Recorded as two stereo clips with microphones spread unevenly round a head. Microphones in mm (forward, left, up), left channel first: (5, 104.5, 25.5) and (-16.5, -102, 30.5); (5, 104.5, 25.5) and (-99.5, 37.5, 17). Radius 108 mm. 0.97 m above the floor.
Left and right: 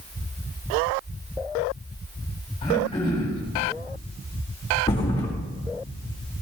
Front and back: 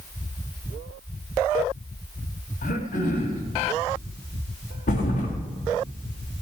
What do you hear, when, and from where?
2.6 s throat clearing: 15° left, 5 m
4.9 s a thud: 15° left, 4 m